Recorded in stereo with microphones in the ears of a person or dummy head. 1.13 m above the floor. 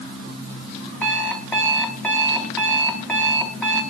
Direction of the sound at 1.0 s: 5° left (ahead or behind).